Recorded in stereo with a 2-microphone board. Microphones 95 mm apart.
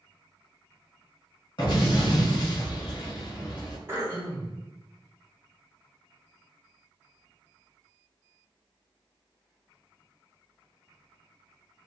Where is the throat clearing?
30° right (ahead or behind), 0.7 m.